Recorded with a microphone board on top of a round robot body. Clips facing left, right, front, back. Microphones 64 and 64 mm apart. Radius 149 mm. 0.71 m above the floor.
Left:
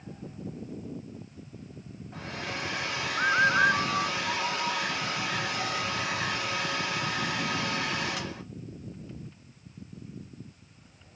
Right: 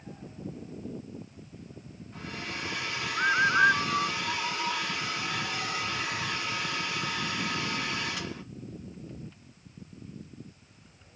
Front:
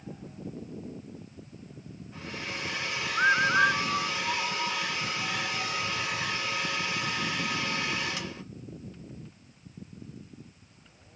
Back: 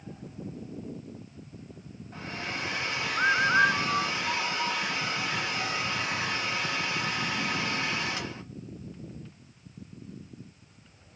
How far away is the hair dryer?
About 0.9 m.